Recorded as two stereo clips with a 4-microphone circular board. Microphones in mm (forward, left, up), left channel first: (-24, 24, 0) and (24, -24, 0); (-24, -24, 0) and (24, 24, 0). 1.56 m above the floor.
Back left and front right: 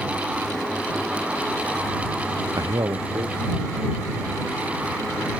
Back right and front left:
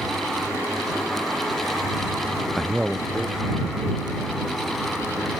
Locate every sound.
2.6 s a man speaking: 45° right; by 5.3 s 20° right